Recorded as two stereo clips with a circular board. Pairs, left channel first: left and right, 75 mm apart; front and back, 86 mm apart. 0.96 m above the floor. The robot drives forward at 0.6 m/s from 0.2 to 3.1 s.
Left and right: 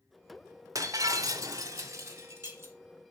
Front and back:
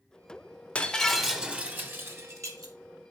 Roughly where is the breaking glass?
Right.